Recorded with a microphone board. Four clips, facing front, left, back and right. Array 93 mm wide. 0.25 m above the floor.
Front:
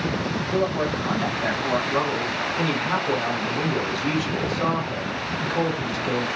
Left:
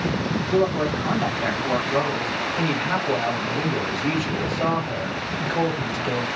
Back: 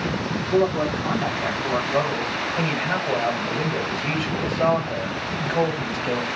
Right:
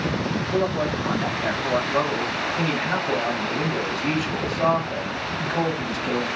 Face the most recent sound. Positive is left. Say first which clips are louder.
# even, back 1 dB
turn(degrees=170)